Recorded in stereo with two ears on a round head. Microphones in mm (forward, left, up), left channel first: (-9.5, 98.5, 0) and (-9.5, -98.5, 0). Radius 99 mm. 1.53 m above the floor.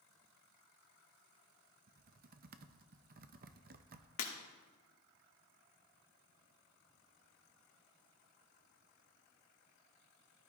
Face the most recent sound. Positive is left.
turn(degrees=70)  # may be behind; listen again after turning